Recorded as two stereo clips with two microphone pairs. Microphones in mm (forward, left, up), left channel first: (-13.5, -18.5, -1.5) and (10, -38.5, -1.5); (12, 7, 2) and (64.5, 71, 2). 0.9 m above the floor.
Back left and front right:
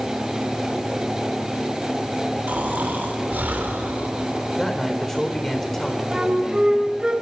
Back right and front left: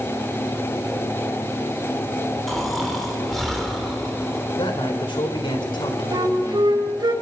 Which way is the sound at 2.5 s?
40° right.